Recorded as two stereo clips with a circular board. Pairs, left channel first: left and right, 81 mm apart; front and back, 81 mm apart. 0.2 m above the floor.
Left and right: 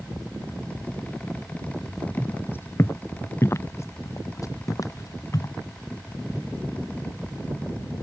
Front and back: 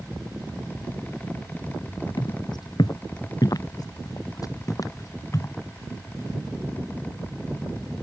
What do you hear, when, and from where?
2.2 s footsteps: 25° left; by 5.5 s 50° left